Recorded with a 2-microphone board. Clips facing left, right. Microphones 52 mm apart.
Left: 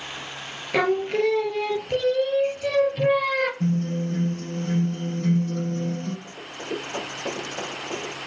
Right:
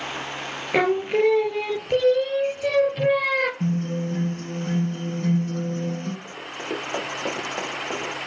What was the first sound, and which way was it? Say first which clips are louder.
Singing: right 1 dB; 15° right (ahead or behind).